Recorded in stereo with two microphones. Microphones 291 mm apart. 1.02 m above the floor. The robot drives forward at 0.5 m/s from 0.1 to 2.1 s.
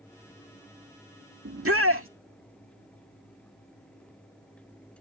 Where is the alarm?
No alarm in this recording.